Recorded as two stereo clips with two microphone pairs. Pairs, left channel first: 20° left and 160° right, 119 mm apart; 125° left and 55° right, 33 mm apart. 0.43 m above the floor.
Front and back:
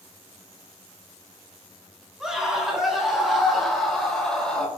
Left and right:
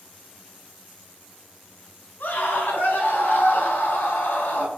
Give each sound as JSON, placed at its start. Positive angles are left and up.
{"t": 2.2, "sound": "a scream", "azimuth_deg": 115, "distance_m": 6.0}